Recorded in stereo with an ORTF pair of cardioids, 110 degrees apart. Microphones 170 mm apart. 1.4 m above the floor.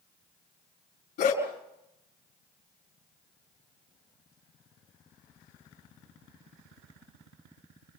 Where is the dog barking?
70° left, 4.5 m.